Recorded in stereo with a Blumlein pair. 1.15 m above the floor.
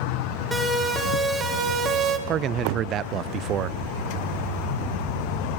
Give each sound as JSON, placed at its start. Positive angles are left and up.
{"t": 0.5, "sound": "a siren", "azimuth_deg": -5, "distance_m": 4.0}
{"t": 2.3, "sound": "a man speaking", "azimuth_deg": -30, "distance_m": 0.5}